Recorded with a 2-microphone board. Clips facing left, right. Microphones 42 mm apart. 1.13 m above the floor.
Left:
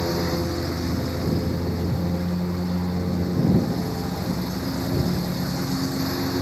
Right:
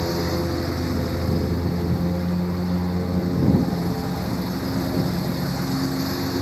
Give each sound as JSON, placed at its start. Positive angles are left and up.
{"t": 0.0, "sound": "a lawn mower", "side_deg": -10}